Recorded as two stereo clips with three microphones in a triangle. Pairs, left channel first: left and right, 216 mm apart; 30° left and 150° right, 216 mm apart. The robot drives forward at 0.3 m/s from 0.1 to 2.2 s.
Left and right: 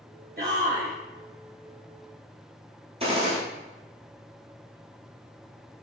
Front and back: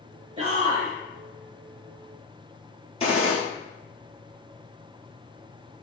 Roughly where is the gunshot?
Ahead right.